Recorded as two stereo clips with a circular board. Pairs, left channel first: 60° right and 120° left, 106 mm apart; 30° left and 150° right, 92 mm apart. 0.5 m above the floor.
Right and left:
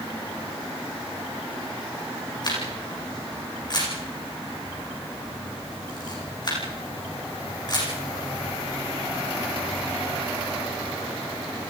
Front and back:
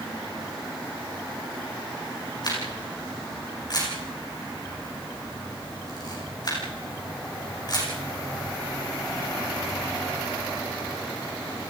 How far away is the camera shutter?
About 8.5 m.